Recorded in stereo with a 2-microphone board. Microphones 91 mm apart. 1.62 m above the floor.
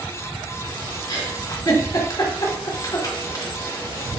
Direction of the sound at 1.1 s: 45° left (ahead or behind).